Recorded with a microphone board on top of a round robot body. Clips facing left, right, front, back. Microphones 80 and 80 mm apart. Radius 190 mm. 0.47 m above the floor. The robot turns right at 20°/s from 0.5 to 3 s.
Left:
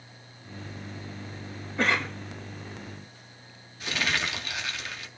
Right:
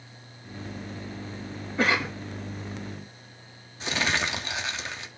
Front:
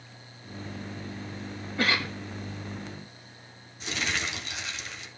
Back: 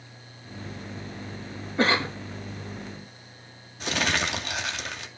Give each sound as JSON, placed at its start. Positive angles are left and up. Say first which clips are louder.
{"t": 1.8, "sound": "a cough", "louder": "right 1 dB, back 4 dB", "azimuth_deg": -170, "distance_m": 0.7}
{"t": 3.8, "sound": "crumpling", "louder": "right 2 dB, back 5 dB", "azimuth_deg": -150, "distance_m": 2.5}